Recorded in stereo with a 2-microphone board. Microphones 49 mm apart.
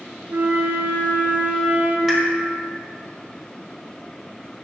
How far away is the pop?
About 1.3 m.